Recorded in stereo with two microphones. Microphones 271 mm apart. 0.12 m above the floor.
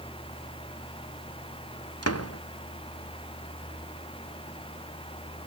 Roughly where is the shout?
No shout in this recording.